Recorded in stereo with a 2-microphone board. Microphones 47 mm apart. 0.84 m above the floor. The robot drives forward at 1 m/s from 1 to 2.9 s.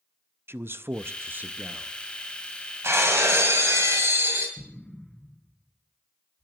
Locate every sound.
0.5 s a man speaking: 55° right (ahead or behind), 0.5 m; by 1.9 s 25° right (ahead or behind), 1.0 m
2.8 s breaking glass: 65° right (ahead or behind), 2 m
4.6 s an explosion: 10° left (ahead or behind), 4 m